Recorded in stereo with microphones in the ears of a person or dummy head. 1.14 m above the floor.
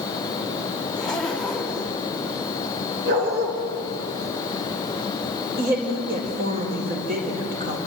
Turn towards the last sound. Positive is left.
turn(degrees=-40)  # may be behind; listen again after turning